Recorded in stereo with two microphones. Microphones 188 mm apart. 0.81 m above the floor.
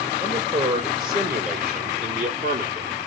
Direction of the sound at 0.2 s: 55° right (ahead or behind).